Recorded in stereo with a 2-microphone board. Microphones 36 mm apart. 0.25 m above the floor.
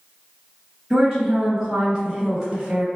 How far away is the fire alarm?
I don't hear a fire alarm.